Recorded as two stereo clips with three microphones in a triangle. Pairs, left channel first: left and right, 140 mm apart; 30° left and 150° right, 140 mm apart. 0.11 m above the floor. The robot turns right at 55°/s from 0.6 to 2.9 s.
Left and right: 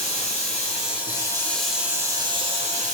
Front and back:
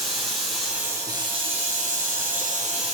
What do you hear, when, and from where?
0.0 s running water: 120° left, 3 m; by 3.0 s 110° right, 3 m